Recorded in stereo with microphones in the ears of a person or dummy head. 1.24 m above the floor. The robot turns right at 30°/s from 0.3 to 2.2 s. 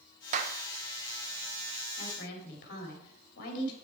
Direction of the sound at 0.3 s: 40° right (ahead or behind).